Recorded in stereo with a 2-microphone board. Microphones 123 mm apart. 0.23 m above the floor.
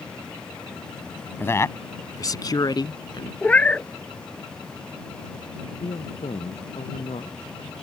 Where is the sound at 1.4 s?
20° left (ahead or behind); by 3.3 s 40° left (ahead or behind).